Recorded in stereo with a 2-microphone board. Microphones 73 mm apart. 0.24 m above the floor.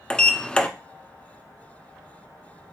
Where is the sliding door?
15° left (ahead or behind), 0.5 m.